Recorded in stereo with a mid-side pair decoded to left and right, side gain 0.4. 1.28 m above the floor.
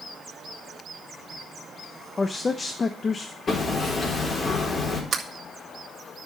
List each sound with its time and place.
2.2 s a man speaking: 35° left, 1.0 m
3.5 s hammering: 40° left, 4 m
5.1 s a sliding door: 45° right, 1.8 m